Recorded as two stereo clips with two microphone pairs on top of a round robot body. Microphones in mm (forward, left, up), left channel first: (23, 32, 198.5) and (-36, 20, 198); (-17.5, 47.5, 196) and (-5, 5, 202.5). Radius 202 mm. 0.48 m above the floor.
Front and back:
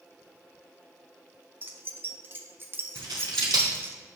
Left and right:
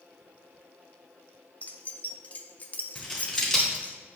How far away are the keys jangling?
About 0.9 m.